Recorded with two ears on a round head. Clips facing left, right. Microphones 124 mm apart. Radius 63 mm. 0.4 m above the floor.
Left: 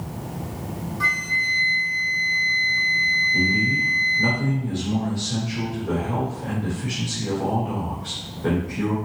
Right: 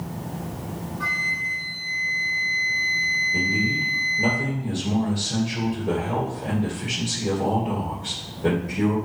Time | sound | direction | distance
1.0 | a flute | 70° left (ahead or behind) | 1.7 m
3.3 | a man speaking | 30° right (ahead or behind) | 2.0 m